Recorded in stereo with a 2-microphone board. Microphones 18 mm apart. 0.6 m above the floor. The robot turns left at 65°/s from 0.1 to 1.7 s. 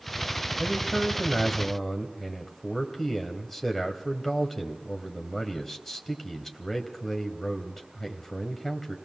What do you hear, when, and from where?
0.6 s a man speaking: 125° right, 3 m; by 9.0 s 165° left, 3 m